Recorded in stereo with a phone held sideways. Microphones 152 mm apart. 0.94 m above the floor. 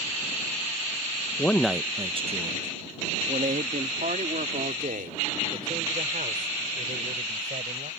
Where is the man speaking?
20° left (ahead or behind); by 7.9 s 75° right (ahead or behind).